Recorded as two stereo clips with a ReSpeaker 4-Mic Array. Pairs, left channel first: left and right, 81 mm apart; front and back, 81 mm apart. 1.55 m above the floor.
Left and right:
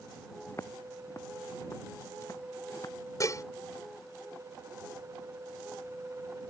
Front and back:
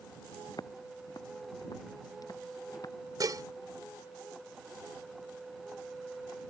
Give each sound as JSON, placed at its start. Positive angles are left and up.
{"t": 0.5, "sound": "footsteps", "azimuth_deg": 35}
{"t": 3.2, "sound": "dishes clattering", "azimuth_deg": 140}